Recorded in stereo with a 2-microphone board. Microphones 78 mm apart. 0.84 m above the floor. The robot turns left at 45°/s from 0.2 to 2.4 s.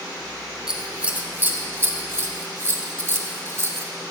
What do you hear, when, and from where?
0.7 s scissors: 10° right (ahead or behind), 0.8 m; by 3.9 s 35° right (ahead or behind), 0.8 m